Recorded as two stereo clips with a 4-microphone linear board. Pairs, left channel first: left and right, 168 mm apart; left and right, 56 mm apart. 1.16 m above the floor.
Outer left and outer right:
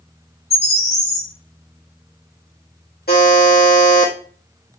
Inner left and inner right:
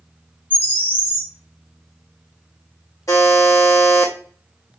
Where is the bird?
35° left (ahead or behind), 1.4 m.